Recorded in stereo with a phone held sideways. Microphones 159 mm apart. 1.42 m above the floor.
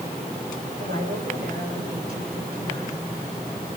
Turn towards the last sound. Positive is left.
turn(degrees=-85)